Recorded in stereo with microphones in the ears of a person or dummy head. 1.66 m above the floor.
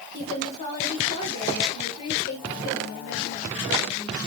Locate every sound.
0.1 s a woman speaking: 30° left (ahead or behind), 5.5 m